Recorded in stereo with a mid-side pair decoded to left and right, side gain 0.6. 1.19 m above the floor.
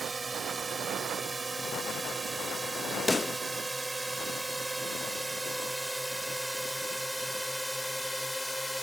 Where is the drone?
25° right; by 8.8 s 5° left.